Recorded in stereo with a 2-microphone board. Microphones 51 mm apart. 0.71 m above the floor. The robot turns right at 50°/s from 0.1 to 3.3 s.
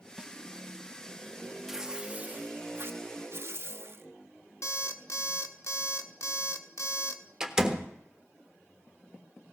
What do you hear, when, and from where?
0.2 s a snare drum: 20° right (ahead or behind), 0.6 m
1.7 s tearing paper: 170° right, 0.6 m; by 4.1 s 90° right, 0.6 m
4.6 s an alarm clock: 70° left (ahead or behind), 1.0 m
7.4 s a door slam: 15° right (ahead or behind), 1.4 m